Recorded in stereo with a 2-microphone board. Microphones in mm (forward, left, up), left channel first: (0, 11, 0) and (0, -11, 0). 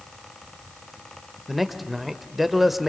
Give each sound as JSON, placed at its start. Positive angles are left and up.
{"t": 1.5, "sound": "a man speaking", "side_deg": -5, "distance_m": 1.4}